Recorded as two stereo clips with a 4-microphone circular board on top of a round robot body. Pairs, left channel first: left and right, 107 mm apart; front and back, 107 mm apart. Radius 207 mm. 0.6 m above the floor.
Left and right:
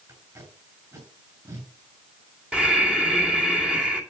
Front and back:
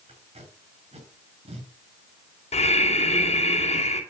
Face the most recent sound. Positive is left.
turn(degrees=-10)